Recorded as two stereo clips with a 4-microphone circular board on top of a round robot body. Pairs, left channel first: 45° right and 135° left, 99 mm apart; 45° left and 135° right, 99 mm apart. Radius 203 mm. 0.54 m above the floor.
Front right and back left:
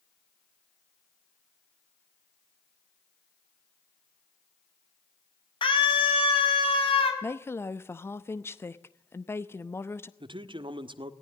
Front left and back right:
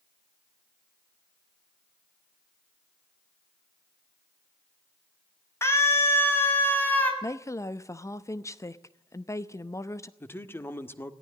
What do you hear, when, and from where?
5.6 s a scream: 15° right, 5 m; by 7.1 s 25° right, 5 m
7.2 s a woman speaking: 5° left, 1.2 m
10.2 s a man speaking: 110° left, 1.8 m